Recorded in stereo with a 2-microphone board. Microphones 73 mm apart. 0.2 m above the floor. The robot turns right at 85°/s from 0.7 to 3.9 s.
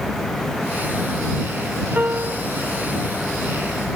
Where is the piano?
155° right; by 2.5 s 110° right.